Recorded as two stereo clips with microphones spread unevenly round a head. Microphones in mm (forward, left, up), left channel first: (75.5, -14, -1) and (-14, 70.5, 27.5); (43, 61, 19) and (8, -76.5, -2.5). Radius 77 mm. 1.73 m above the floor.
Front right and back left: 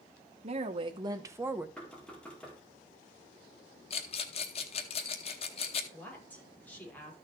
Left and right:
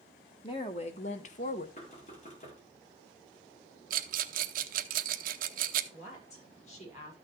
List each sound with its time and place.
0.4 s a woman speaking: 125° left, 1.2 m; by 1.7 s 70° left, 1.1 m
1.8 s knocking: 40° left, 3.5 m
3.9 s a rattle: 100° right, 0.9 m
5.9 s a woman speaking: 35° left, 6 m